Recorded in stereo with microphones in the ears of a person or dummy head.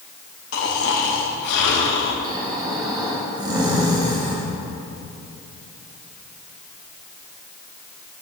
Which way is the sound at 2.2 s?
20° right (ahead or behind).